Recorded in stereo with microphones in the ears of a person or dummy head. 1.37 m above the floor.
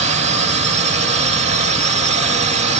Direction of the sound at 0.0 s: 35° right (ahead or behind).